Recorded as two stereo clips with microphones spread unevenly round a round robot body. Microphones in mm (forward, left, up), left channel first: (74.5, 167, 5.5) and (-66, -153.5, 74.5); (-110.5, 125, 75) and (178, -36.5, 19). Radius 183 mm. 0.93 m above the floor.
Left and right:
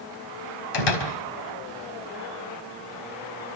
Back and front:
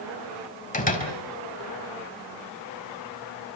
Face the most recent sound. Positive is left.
turn(degrees=85)